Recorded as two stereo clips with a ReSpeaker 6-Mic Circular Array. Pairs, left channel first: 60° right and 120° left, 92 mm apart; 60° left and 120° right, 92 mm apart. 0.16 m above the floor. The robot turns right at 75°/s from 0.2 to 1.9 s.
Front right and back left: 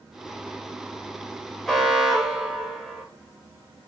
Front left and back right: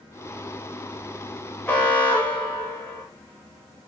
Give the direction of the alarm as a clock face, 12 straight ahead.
11 o'clock.